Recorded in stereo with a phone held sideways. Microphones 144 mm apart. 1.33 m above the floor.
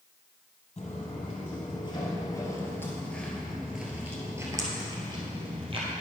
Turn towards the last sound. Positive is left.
turn(degrees=-40)  # may be behind; listen again after turning